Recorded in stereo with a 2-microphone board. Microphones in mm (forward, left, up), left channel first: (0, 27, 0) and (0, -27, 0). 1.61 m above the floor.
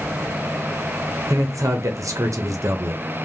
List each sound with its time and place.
1.3 s a man speaking: 80° right, 0.5 m